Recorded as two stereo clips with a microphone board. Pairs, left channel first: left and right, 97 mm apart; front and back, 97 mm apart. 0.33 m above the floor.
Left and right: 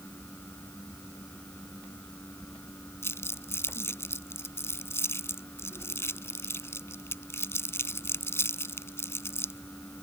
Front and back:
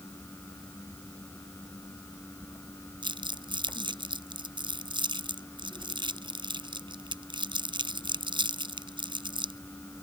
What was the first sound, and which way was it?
Crumpling, 155° left.